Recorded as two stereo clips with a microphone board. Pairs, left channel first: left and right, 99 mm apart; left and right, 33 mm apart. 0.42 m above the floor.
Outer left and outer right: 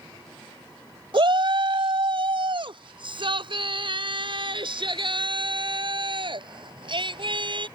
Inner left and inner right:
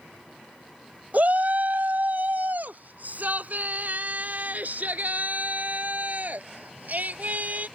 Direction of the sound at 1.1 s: 55° right (ahead or behind).